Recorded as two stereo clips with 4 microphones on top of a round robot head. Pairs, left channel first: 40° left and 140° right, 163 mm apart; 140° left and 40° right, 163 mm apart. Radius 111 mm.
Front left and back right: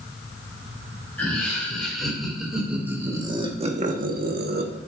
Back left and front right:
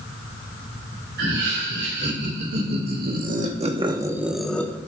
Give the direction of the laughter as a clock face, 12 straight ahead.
1 o'clock.